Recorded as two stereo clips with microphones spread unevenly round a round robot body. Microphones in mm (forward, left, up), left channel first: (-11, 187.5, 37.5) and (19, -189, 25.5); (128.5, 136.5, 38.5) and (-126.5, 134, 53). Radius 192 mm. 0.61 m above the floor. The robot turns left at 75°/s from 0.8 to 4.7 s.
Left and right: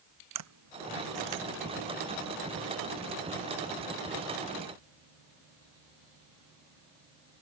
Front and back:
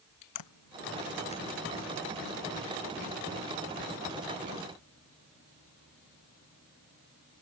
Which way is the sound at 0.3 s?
35° right.